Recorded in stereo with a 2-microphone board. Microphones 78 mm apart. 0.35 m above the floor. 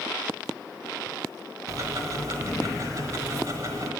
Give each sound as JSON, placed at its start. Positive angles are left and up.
{"t": 1.7, "sound": "ticking", "side_deg": -50, "distance_m": 1.3}